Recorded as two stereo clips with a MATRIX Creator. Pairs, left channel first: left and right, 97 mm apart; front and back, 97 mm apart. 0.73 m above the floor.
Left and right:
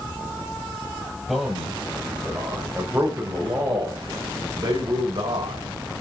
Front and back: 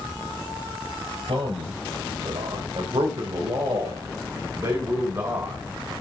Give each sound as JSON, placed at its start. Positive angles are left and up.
{"t": 1.3, "sound": "a man speaking", "azimuth_deg": 180, "distance_m": 3.0}